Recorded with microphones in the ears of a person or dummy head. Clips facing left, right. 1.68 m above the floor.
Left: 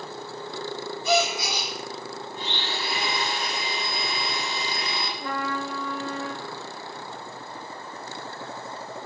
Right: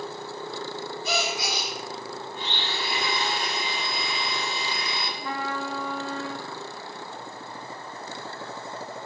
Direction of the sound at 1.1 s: 70° left (ahead or behind).